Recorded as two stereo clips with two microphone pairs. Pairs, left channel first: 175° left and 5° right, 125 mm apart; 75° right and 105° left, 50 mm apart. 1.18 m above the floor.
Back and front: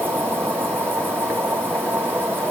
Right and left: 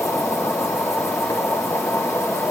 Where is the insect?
80° right, 1.7 m.